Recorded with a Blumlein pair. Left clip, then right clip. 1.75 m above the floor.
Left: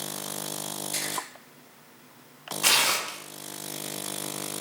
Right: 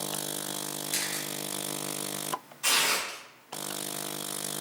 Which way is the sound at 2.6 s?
60° left.